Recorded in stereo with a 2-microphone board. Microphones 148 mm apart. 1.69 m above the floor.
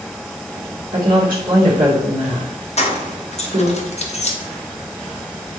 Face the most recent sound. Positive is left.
turn(degrees=45)  # may be behind; listen again after turning